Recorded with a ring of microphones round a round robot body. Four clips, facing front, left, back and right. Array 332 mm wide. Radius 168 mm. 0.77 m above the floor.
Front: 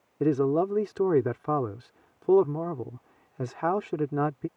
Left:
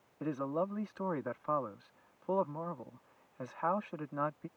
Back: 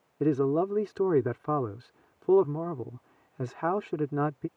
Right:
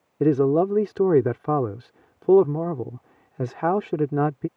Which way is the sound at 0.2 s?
95° right.